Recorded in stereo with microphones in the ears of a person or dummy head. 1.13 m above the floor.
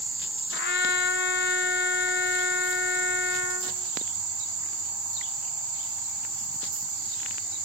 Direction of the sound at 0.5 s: 55° left (ahead or behind).